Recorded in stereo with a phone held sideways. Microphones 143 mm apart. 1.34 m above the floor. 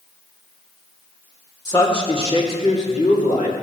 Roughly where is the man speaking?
Left.